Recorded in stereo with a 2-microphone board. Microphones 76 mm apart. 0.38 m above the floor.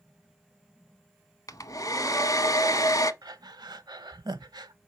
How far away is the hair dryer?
About 0.7 m.